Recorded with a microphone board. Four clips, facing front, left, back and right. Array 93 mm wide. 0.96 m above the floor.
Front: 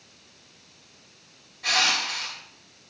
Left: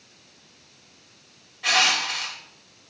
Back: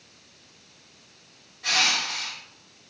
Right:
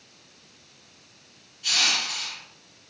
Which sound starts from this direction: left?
Crushing, at 1.6 s.